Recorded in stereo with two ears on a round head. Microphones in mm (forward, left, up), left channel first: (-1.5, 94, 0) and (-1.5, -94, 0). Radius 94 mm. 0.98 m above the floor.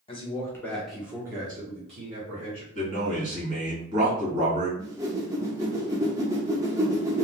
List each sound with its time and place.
0.1 s a man speaking: 25° left (ahead or behind), 0.9 m; by 2.6 s 45° right (ahead or behind), 1.3 m
2.8 s a man speaking: 35° right (ahead or behind), 1.7 m
4.8 s a whoosh: 15° right (ahead or behind), 0.6 m